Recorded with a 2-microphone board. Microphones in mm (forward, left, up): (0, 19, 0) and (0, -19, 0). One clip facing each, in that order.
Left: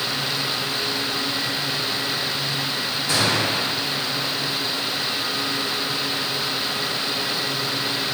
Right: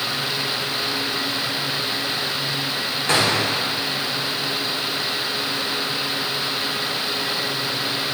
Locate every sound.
3.1 s a gunshot: 55° right (ahead or behind), 2.0 m